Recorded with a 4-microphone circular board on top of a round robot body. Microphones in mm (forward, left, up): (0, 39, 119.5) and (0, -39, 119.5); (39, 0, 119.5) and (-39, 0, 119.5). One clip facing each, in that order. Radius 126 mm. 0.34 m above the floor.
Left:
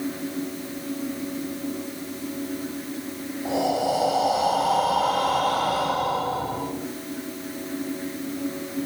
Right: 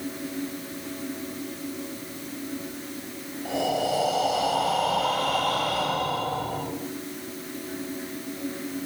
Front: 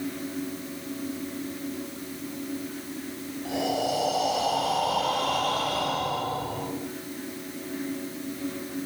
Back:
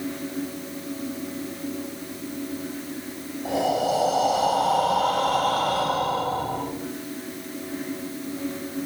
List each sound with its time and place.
3.5 s breathing: 145° left, 2 m